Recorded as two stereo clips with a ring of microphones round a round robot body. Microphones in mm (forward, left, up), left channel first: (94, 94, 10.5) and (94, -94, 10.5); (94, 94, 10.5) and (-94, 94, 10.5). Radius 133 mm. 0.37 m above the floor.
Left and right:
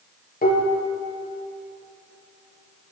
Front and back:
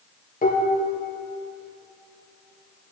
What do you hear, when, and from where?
0.4 s dishes clattering: 45° left, 5.5 m